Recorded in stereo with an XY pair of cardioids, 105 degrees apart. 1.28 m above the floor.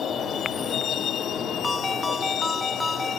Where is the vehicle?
55° left; by 3.2 s 70° left.